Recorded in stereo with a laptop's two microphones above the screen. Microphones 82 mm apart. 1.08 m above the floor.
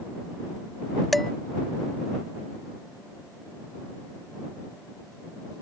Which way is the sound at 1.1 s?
Centre (ahead or behind).